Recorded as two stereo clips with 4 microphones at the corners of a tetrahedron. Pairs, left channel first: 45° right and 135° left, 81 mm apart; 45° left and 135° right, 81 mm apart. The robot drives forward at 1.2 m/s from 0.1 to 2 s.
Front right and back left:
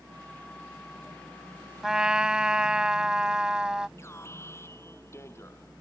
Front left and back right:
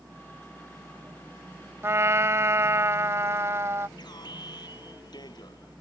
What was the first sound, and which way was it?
A trumpet, 145° right.